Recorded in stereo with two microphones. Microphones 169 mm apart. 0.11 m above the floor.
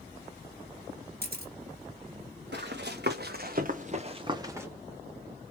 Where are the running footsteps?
85° right, 1.8 m; by 4.7 s 10° right (ahead or behind), 1.4 m.